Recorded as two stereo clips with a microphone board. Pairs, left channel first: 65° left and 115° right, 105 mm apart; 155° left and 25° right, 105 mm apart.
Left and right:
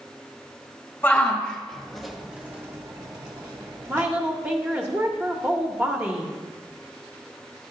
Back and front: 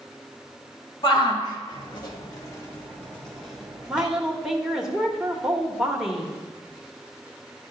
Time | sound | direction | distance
1.0 | a shout | 140° left | 1.7 m
3.9 | a woman speaking | 100° right | 0.8 m